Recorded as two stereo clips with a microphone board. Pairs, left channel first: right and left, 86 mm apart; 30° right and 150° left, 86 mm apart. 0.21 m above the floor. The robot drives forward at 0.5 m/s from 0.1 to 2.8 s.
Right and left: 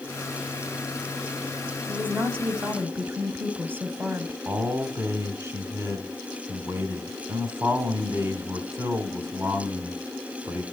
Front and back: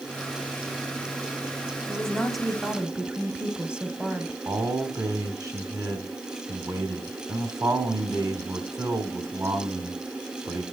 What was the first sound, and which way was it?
A woman speaking, 40° left.